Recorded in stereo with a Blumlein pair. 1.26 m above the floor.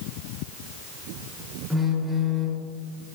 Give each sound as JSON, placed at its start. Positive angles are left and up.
{"t": 1.7, "sound": "a phone buzzing", "azimuth_deg": -5, "distance_m": 3.0}